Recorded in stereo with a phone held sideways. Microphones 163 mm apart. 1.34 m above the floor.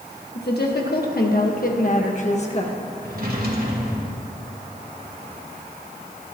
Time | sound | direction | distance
0.3 | a woman speaking | 85° left | 1.8 m
3.0 | a drawer | 70° right (ahead or behind) | 2 m